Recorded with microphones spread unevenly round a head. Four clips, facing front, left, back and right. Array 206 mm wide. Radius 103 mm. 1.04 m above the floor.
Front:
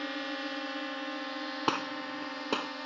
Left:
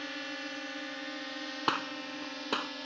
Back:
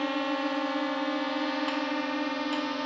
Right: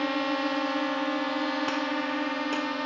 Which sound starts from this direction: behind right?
A drone, at 0.0 s.